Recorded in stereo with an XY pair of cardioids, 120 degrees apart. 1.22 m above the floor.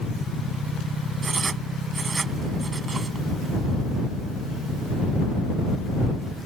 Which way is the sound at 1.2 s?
30° right.